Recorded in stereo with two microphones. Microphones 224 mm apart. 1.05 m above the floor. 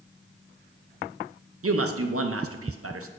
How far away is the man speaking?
About 0.6 m.